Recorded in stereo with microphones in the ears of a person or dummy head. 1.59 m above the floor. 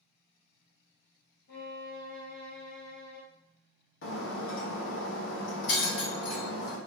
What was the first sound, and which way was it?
A violin, 60° left (ahead or behind).